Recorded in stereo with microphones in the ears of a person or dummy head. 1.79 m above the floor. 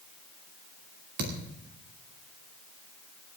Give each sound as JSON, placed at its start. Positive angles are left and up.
{"t": 1.2, "sound": "a thud", "side_deg": -55, "distance_m": 2.5}